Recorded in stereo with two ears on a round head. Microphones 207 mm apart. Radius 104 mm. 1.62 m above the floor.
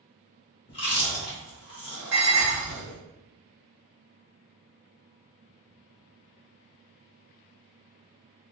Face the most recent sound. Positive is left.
turn(degrees=-50)  # may be behind; listen again after turning